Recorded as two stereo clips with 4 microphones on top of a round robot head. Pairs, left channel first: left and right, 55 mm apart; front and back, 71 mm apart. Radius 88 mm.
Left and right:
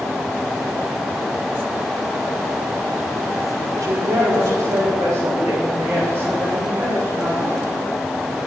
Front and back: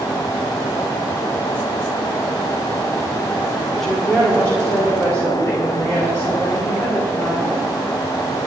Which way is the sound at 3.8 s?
85° right.